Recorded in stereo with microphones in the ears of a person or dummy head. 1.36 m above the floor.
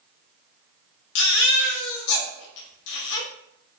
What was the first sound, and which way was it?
A baby crying, 70° left (ahead or behind).